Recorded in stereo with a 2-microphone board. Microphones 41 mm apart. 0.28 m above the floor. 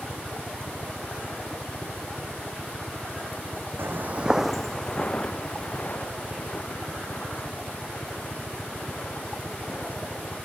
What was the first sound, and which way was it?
A helicopter, 20° left (ahead or behind).